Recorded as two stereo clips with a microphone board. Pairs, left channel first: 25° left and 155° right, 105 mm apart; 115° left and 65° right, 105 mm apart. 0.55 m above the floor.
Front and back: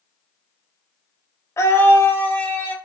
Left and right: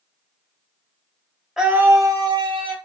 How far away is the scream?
About 0.6 m.